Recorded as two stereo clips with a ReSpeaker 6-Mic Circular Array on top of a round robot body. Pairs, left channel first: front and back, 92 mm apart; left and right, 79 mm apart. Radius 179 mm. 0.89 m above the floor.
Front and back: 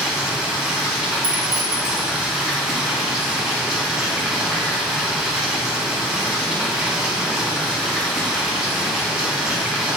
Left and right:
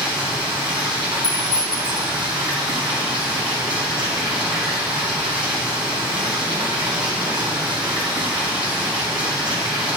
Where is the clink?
160° left, 1.2 m.